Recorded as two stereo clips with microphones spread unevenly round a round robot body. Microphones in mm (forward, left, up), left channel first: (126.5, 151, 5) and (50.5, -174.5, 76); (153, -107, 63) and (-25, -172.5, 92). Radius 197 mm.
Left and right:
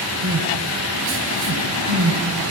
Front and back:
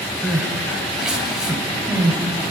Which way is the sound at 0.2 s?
70° right.